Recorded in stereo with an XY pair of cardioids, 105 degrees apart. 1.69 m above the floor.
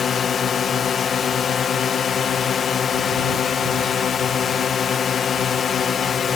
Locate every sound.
0.0 s a drone: 50° left